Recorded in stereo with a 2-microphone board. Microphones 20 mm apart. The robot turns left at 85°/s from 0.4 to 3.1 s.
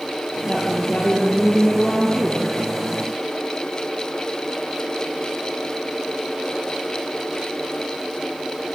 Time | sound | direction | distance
0.5 | a woman speaking | 140° left | 4.5 m